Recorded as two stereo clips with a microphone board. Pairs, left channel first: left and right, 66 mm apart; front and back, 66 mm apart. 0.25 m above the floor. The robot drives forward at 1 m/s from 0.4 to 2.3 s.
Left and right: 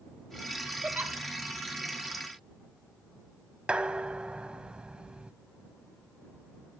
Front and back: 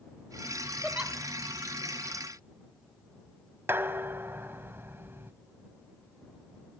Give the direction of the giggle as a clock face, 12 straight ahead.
3 o'clock.